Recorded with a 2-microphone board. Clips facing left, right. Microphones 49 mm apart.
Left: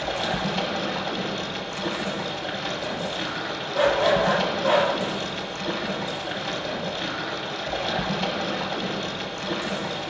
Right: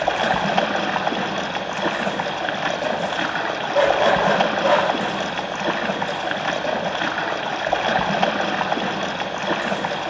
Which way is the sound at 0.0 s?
55° right (ahead or behind).